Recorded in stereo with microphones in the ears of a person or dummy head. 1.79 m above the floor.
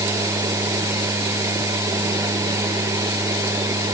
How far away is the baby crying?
I don't hear a baby crying.